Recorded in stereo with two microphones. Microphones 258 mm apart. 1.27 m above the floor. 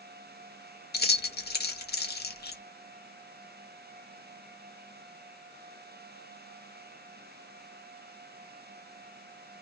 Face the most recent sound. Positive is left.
turn(degrees=40)  # may be behind; listen again after turning